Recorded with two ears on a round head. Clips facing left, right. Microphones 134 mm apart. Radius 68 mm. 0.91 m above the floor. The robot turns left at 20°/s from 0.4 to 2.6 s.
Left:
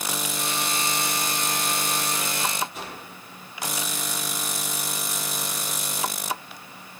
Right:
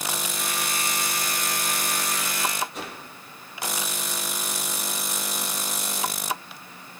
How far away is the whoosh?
About 8.5 m.